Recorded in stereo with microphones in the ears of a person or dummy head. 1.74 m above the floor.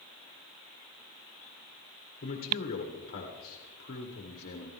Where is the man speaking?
45° left (ahead or behind), 1.9 m.